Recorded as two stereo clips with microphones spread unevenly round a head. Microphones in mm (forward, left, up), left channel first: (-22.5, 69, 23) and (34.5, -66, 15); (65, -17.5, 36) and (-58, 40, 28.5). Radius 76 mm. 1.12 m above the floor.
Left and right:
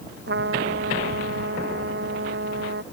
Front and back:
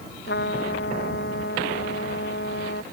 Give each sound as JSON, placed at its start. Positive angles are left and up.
{"t": 0.3, "sound": "a trumpet", "azimuth_deg": -45}